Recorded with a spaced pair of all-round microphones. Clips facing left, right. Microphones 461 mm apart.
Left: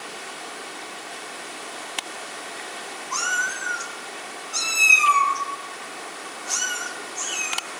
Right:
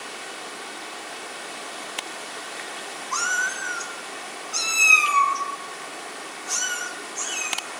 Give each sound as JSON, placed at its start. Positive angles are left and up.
{"t": 3.1, "sound": "a cat meowing", "side_deg": 5, "distance_m": 1.1}